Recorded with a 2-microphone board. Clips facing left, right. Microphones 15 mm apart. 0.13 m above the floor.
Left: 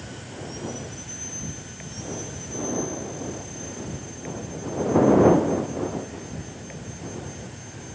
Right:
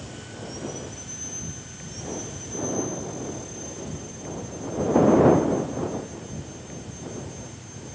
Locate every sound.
0.0 s an insect: 30° left (ahead or behind)